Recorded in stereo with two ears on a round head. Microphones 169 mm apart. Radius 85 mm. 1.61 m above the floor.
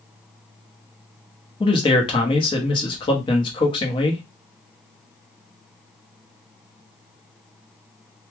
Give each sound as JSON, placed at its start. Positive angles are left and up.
{"t": 1.6, "sound": "a man speaking", "side_deg": 25, "distance_m": 0.8}